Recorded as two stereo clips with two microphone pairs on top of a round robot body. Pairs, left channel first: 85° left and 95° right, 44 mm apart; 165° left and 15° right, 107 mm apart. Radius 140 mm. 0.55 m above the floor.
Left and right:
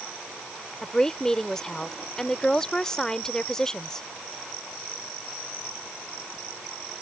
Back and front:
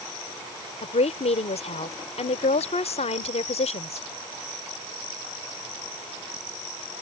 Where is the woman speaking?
165° left.